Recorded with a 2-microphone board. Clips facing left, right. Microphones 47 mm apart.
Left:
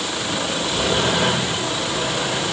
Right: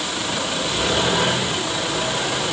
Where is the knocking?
No knocking in this recording.